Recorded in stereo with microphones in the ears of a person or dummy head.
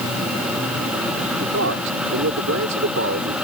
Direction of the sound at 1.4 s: 65° right (ahead or behind).